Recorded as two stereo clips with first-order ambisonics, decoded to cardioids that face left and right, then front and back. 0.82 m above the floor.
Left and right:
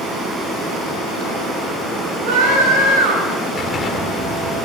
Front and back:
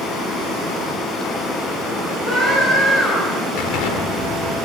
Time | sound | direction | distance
2.2 | a scream | 80° right | 6 m
3.6 | an explosion | 20° left | 1.6 m